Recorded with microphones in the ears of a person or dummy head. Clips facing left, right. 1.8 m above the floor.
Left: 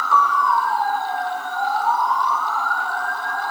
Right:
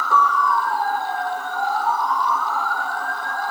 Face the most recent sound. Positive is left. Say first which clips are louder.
# even
turn(degrees=-40)  # may be behind; listen again after turning